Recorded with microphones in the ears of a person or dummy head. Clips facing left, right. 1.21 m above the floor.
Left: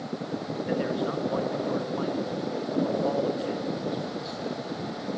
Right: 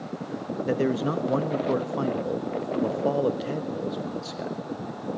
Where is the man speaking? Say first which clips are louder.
Right 4 dB; 50° right (ahead or behind), 1.3 m.